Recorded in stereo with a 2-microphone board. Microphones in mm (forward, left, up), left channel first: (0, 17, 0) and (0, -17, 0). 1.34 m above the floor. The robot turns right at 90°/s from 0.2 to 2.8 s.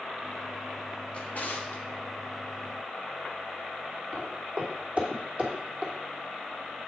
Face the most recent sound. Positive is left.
turn(degrees=-25)  # may be behind; listen again after turning